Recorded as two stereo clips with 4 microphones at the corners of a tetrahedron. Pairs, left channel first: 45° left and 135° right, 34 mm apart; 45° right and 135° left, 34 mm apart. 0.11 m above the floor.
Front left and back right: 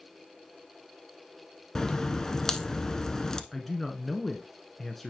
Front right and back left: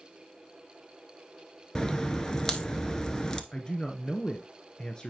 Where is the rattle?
No rattle in this recording.